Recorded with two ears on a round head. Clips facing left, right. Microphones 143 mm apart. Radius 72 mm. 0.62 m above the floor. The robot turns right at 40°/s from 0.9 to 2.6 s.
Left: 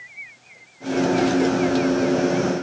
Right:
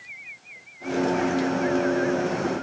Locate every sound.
Only background noise.